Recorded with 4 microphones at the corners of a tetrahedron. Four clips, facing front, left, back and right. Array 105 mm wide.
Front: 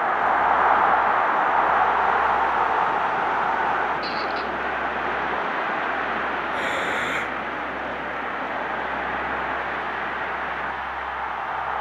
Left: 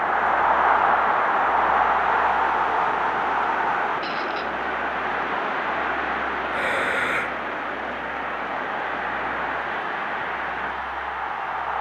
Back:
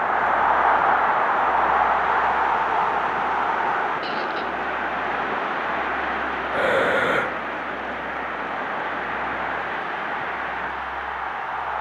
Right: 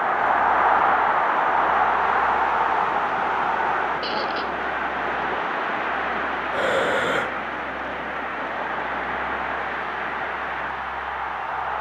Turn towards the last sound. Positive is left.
turn(degrees=-145)